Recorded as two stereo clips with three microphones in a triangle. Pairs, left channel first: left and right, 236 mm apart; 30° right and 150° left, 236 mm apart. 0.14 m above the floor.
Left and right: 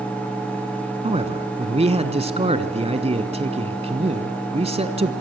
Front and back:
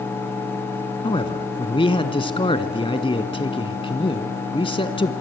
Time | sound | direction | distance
1.0 | a man speaking | 70° right | 1.2 m